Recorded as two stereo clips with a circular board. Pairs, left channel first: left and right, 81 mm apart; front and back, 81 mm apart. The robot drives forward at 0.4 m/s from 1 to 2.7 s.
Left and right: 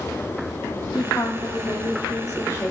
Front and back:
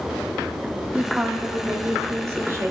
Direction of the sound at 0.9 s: 110° left.